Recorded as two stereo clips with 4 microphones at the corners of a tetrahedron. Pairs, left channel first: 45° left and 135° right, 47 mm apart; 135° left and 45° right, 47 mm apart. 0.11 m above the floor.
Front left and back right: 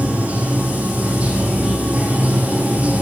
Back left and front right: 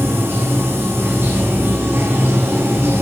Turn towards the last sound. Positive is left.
turn(degrees=-80)